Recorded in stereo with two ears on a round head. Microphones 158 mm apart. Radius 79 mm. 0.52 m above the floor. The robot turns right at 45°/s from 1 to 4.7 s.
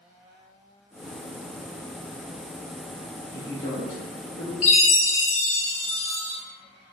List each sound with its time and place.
3.3 s a man speaking: 35° left, 1.5 m; by 4.5 s 90° left, 1.5 m
4.6 s a chime: 40° left (ahead or behind), 0.7 m